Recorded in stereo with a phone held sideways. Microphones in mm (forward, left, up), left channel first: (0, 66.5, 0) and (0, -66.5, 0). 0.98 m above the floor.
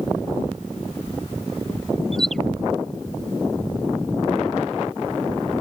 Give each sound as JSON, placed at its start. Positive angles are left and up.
{"t": 2.1, "sound": "a bird", "side_deg": 0}